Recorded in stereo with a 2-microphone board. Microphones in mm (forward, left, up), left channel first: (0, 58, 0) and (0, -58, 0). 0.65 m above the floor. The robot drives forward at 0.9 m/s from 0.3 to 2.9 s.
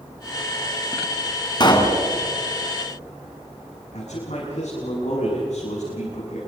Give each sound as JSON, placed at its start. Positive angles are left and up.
{"t": 1.6, "sound": "a pop", "side_deg": 40, "distance_m": 2.5}
{"t": 3.9, "sound": "a man speaking", "side_deg": 80, "distance_m": 7.5}